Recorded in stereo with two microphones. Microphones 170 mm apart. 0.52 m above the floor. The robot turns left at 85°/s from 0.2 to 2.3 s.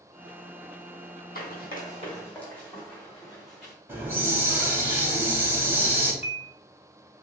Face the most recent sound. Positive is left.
turn(degrees=40)  # may be behind; listen again after turning